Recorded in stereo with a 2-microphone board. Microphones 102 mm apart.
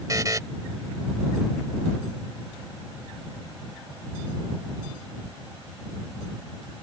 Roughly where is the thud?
No thud in this recording.